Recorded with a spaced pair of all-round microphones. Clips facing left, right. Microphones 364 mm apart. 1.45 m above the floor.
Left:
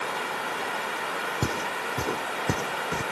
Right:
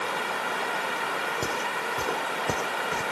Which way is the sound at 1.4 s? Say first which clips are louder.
Left 1 dB; 30° left (ahead or behind).